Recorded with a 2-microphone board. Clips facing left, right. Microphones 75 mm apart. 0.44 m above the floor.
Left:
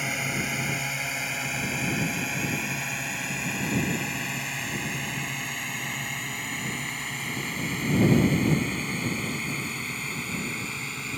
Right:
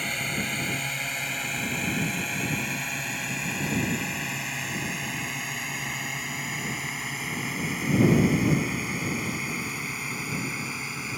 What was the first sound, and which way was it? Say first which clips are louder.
A drone: left 1 dB; 10° left (ahead or behind).